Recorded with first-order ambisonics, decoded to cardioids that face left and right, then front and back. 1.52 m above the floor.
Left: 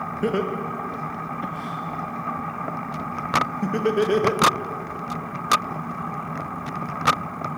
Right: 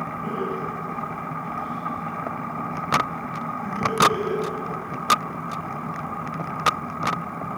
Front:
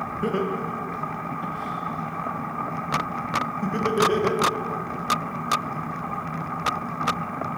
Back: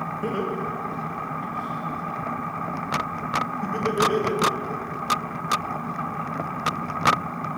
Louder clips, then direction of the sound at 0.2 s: Left 5 dB, front 2 dB; 75° left.